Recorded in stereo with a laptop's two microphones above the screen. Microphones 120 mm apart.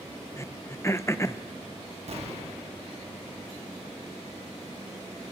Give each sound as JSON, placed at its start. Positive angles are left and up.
{"t": 0.4, "sound": "throat clearing", "side_deg": 25, "distance_m": 0.8}
{"t": 2.1, "sound": "an explosion", "side_deg": -60, "distance_m": 1.2}